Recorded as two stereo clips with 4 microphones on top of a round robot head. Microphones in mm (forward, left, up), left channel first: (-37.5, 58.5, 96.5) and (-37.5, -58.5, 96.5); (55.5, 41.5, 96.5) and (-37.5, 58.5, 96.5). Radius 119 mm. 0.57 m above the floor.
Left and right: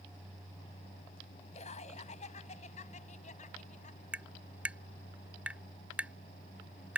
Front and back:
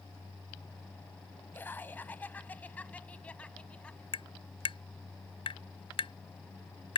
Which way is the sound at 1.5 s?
60° left.